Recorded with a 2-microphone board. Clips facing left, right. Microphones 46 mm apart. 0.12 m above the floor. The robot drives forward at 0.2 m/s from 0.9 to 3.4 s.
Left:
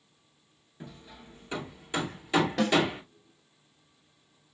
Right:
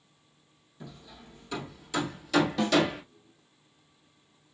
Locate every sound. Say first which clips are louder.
0.8 s hammering: even; 30° left (ahead or behind), 1.2 m; by 3.0 s 20° left (ahead or behind), 1.5 m
2.6 s a snare drum: left 3 dB; 40° left (ahead or behind), 2.5 m